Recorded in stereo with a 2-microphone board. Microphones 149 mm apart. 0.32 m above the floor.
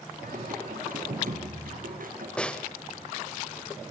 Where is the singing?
70° right (ahead or behind), 6 m.